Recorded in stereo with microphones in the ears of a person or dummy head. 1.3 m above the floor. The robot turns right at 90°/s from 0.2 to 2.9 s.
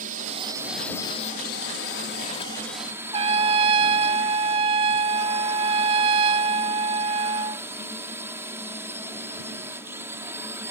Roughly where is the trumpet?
Right.